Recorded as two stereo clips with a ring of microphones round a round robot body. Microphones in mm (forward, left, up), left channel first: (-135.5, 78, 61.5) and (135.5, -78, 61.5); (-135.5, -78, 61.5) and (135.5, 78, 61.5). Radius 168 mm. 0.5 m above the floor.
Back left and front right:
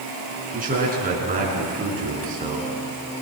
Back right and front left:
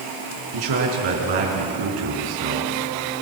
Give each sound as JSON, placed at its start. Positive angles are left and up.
{"t": 0.5, "sound": "a man speaking", "azimuth_deg": 35, "distance_m": 6.5}